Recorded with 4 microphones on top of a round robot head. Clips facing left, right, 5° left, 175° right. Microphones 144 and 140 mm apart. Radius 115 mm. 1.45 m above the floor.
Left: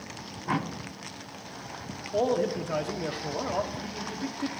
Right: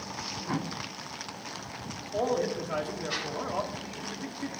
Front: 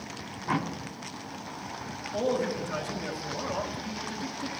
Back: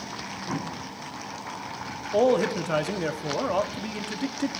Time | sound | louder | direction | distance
2.1 | a man speaking | left 3 dB, back 7 dB | 160° left | 0.9 m